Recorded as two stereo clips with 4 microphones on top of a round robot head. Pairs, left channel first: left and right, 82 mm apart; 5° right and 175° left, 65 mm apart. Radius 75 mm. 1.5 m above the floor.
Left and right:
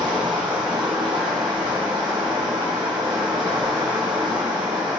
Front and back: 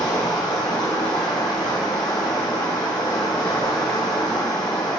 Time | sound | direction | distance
0.0 | running water | 40° right | 0.9 m